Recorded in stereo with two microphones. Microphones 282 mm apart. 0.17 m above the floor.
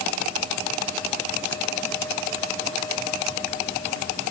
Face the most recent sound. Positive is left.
No sound to turn to.